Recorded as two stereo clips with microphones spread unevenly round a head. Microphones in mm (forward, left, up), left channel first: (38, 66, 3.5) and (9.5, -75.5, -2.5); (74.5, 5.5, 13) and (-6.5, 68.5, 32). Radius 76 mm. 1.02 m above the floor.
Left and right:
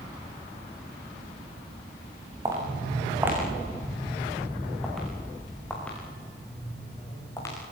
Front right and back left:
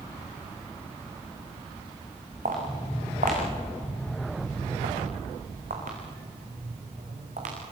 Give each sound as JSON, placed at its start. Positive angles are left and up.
{"t": 2.5, "sound": "footsteps", "azimuth_deg": -175, "distance_m": 5.5}